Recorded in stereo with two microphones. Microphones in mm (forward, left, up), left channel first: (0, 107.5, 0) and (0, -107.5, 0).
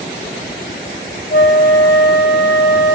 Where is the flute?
55° left (ahead or behind), 1.2 m.